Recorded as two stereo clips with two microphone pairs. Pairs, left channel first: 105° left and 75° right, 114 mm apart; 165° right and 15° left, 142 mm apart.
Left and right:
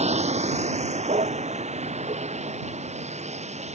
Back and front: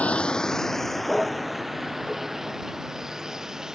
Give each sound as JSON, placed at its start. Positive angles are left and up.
{"t": 0.0, "sound": "a vehicle", "azimuth_deg": -85}